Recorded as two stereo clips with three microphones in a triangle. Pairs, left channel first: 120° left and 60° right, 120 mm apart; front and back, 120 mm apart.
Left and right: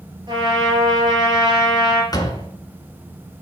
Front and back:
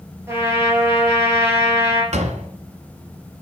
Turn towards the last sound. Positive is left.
turn(degrees=175)